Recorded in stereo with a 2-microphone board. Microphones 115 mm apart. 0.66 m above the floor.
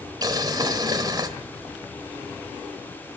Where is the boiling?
35° right (ahead or behind), 1.6 m.